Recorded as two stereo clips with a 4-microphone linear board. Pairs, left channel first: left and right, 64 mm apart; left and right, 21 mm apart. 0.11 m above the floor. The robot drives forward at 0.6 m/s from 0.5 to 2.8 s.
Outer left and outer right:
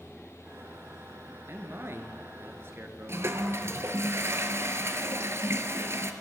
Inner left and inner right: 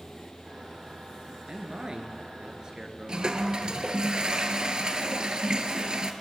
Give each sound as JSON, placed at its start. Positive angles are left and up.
{"t": 1.5, "sound": "a man speaking", "side_deg": -40, "distance_m": 1.5}
{"t": 3.1, "sound": "a toilet flushing", "side_deg": -45, "distance_m": 0.8}